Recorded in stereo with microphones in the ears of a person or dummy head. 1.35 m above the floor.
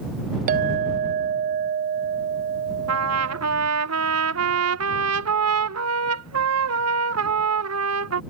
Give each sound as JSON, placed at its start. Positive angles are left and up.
{"t": 0.5, "sound": "a clink", "side_deg": -45}
{"t": 2.9, "sound": "a trumpet", "side_deg": -75}